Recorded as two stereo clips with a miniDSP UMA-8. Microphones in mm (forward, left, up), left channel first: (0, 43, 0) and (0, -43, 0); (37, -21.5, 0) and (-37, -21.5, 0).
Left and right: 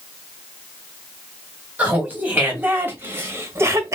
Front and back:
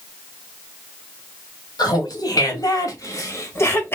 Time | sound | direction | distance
1.8 | laughter | 20° right | 2 m